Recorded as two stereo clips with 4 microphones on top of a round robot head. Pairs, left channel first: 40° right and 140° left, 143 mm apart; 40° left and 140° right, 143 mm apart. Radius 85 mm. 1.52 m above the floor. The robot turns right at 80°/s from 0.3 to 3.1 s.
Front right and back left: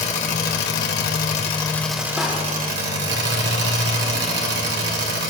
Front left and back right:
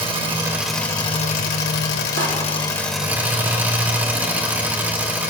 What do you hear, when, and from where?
0.0 s an engine running: 80° right, 2.0 m; by 5.3 s 140° left, 2.0 m
2.2 s a door slam: 140° right, 2.5 m; by 2.3 s 130° right, 2.5 m